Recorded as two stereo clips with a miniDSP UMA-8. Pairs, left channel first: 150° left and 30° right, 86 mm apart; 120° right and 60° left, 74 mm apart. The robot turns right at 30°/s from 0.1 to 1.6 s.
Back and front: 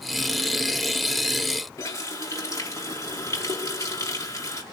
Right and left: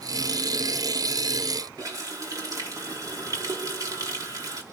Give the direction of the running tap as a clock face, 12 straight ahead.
9 o'clock.